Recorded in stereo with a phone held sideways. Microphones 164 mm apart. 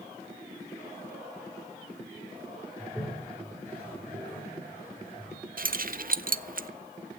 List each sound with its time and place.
2.8 s a toilet flushing: 10° left (ahead or behind), 5.5 m
5.6 s keys jangling: 60° right (ahead or behind), 0.5 m